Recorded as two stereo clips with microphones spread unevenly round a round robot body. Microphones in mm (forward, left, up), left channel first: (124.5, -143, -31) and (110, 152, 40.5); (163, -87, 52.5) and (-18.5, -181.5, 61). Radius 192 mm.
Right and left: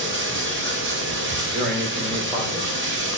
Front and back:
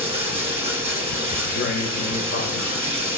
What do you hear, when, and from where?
0.0 s running water: 155° left, 1.0 m
1.4 s a man speaking: 30° left, 3 m